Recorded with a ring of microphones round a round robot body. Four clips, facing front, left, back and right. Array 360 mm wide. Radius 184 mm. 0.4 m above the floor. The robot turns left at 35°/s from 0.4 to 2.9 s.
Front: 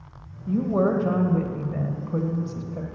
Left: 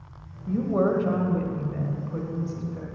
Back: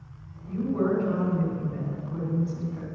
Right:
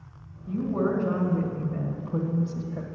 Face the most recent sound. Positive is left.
turn(degrees=-45)